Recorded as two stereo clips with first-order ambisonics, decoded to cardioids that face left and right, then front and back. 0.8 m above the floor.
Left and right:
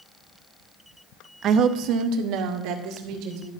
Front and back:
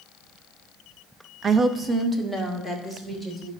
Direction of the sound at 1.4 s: 125° right.